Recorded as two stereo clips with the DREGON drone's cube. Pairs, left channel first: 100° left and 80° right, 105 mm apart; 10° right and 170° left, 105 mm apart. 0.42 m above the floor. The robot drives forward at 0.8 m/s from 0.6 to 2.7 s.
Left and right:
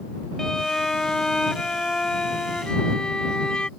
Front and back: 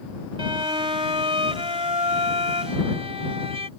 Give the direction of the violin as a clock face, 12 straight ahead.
6 o'clock.